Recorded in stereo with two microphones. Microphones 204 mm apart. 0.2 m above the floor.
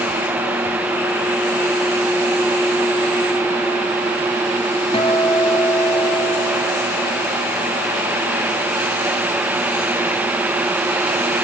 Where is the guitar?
30° left (ahead or behind), 0.7 m.